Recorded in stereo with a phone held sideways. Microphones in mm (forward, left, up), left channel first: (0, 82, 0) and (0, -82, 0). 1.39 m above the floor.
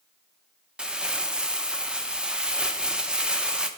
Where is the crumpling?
5° right (ahead or behind), 0.5 m.